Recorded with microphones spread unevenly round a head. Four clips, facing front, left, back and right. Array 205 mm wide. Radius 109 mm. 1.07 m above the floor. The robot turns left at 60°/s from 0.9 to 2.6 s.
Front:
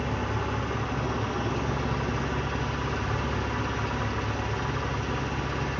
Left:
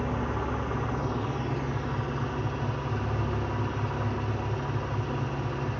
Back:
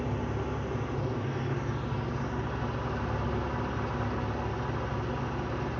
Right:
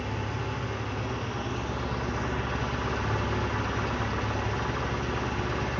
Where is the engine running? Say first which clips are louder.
Left 3 dB, front 3 dB; 40° left, 0.9 m; by 5.8 s 65° right, 0.9 m.